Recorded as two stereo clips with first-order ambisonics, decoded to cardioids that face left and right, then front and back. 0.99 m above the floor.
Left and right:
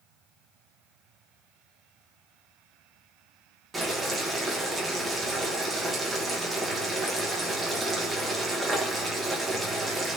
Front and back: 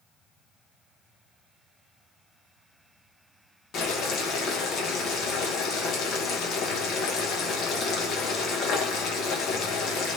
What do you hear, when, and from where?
3.7 s boiling: 15° right, 0.8 m